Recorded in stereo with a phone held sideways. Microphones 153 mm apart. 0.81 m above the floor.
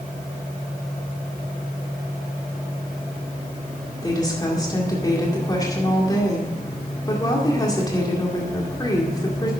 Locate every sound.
4.0 s a woman speaking: 25° left (ahead or behind), 2 m